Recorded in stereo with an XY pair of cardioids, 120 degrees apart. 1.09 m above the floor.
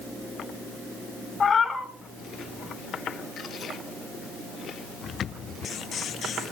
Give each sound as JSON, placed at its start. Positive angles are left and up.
{"t": 1.4, "sound": "a cat meowing", "azimuth_deg": 20, "distance_m": 2.5}